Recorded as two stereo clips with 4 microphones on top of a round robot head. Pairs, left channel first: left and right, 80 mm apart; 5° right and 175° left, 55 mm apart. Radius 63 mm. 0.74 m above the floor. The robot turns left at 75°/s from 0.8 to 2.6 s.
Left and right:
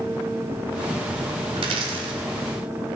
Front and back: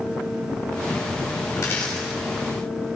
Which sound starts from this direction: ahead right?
A dropped coin, at 1.6 s.